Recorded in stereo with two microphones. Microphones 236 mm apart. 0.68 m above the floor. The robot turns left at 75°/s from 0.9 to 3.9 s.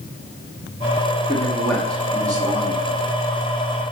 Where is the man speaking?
50° left, 1.4 m; by 2.9 s 70° right, 1.4 m.